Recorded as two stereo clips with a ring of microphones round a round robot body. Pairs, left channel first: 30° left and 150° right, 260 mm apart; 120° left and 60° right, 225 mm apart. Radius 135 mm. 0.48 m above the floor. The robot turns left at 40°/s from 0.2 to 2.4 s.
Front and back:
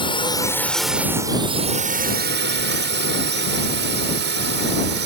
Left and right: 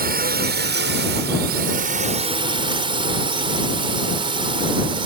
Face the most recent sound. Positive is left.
turn(degrees=-120)